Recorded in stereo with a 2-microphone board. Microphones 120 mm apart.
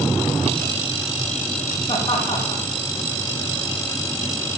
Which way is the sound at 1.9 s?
35° left (ahead or behind).